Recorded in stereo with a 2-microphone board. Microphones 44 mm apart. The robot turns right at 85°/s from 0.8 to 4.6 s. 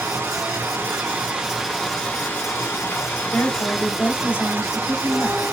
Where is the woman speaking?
50° left, 1.2 m; by 5.4 s 160° left, 1.2 m.